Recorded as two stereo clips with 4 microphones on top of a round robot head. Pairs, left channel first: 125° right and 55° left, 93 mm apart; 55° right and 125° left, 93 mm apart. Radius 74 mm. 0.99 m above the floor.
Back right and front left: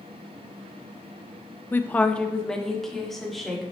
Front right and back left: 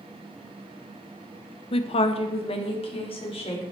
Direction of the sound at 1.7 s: 55° right.